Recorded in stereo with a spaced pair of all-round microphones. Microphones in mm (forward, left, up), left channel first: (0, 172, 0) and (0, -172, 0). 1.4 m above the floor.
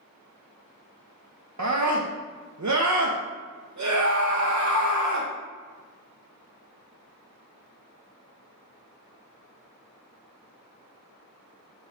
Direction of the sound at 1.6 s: 55° right (ahead or behind).